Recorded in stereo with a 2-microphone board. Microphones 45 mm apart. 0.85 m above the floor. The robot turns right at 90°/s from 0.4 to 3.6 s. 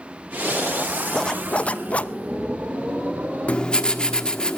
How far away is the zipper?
About 0.6 m.